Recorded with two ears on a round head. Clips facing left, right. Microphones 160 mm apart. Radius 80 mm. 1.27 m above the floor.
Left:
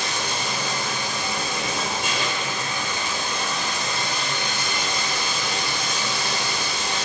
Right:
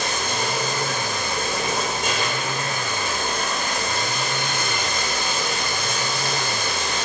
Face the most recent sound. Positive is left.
turn(degrees=-40)  # may be behind; listen again after turning